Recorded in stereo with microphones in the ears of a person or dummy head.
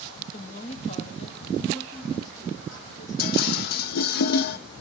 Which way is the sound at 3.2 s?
55° left (ahead or behind).